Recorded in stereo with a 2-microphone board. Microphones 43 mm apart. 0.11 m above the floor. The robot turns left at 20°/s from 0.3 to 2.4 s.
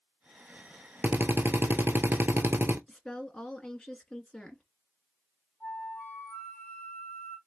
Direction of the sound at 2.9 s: 15° left (ahead or behind).